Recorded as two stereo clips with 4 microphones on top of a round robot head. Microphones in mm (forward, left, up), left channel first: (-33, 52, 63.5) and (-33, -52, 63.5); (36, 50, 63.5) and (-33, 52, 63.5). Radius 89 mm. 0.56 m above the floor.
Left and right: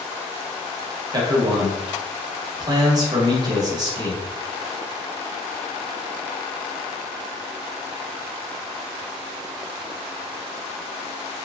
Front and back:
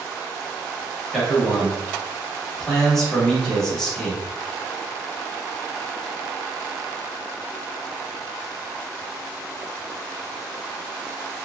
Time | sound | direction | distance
1.1 | a man speaking | 80° right | 0.9 m